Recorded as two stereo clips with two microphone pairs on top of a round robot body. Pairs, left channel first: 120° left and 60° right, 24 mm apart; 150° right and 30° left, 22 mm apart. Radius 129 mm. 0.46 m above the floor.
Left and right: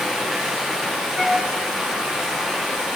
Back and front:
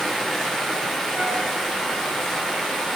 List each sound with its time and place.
0.0 s running water: 95° right, 1.0 m
1.1 s a flute: 40° left, 0.8 m